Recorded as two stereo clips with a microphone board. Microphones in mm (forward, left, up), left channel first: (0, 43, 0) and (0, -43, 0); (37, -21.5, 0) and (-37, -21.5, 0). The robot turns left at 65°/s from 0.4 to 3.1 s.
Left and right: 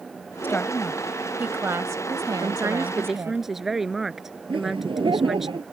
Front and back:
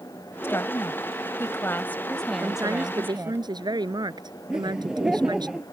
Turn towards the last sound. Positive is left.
turn(degrees=-100)